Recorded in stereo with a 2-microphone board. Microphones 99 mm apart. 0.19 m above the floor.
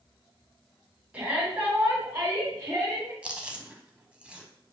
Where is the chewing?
10° right (ahead or behind), 0.6 m.